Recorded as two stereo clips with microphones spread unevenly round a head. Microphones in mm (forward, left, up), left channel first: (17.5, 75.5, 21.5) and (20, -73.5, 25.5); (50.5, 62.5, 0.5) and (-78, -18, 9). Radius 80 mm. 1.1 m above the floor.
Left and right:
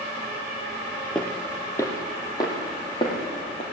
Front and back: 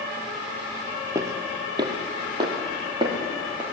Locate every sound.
1.1 s footsteps: 175° left, 1.2 m; by 3.6 s 155° left, 3 m